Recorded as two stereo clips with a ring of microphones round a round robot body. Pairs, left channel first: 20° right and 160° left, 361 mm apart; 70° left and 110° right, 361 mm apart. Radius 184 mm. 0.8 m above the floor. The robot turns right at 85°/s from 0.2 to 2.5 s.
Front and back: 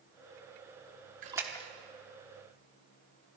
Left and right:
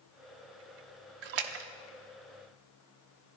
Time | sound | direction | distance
1.2 | a splash | 135° right | 1.0 m